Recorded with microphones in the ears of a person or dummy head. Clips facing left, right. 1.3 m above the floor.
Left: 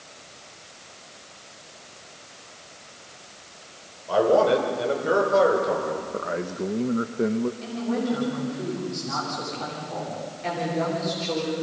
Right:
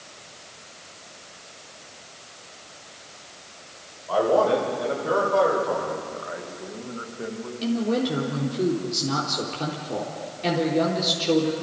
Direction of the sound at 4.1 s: 30° left (ahead or behind).